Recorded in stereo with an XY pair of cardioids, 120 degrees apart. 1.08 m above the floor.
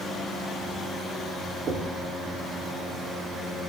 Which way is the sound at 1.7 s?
70° right.